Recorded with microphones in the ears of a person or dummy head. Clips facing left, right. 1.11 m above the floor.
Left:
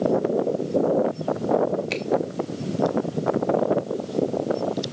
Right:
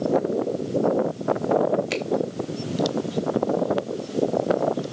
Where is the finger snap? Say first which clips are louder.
Right 2 dB; 10° right (ahead or behind), 1.3 m.